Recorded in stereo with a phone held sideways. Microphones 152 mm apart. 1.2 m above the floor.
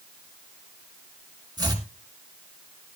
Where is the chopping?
25° right (ahead or behind), 3 m.